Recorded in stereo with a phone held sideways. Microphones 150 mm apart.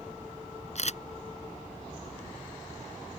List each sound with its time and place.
0.8 s a camera shutter: 55° left (ahead or behind)